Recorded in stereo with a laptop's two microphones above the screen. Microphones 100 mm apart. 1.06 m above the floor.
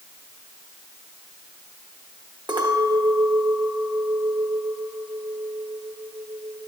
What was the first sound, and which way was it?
A clink, 55° right (ahead or behind).